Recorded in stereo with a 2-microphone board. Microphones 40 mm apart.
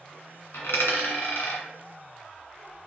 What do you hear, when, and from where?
0.5 s a dropped coin: 80° left, 1.9 m